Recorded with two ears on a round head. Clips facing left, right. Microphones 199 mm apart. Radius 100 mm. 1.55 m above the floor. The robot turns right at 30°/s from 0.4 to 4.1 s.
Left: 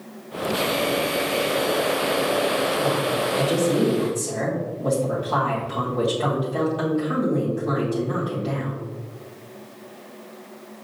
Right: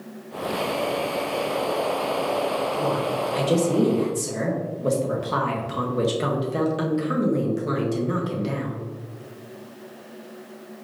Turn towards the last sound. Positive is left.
turn(degrees=-30)